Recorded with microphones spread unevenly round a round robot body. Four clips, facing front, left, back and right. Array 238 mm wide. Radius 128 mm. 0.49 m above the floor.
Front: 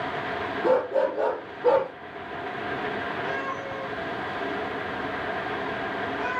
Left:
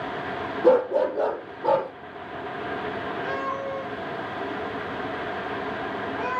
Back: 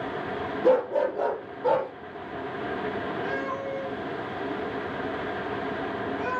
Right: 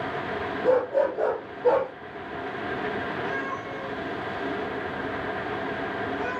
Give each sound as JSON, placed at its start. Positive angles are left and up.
{"t": 0.6, "sound": "a dog barking", "azimuth_deg": 125, "distance_m": 4.5}
{"t": 3.2, "sound": "a cat meowing", "azimuth_deg": 95, "distance_m": 7.0}